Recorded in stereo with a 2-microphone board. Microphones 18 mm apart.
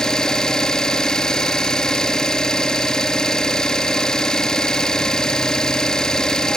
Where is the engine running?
45° left (ahead or behind), 0.8 m.